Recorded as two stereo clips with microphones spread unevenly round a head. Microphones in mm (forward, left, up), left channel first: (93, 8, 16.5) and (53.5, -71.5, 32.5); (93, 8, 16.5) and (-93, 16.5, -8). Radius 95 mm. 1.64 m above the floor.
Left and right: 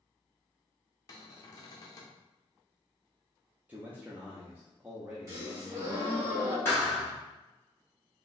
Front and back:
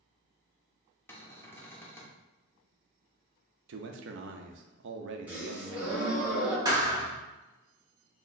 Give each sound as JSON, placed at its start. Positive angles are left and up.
{"t": 1.1, "sound": "a cupboard door", "azimuth_deg": 50, "distance_m": 0.6}
{"t": 3.7, "sound": "a man speaking", "azimuth_deg": 175, "distance_m": 0.5}
{"t": 5.3, "sound": "a gasp", "azimuth_deg": -95, "distance_m": 1.3}
{"t": 6.7, "sound": "a thud", "azimuth_deg": 120, "distance_m": 1.0}